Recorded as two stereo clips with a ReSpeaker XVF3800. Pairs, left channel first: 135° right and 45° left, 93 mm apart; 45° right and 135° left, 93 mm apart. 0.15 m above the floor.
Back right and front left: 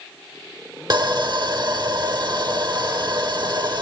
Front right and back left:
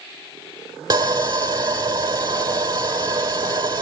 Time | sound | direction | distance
0.9 | sawing | 90° left | 1.5 m